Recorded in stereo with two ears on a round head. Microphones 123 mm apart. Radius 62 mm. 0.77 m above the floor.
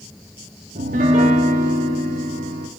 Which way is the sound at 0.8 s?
55° right (ahead or behind).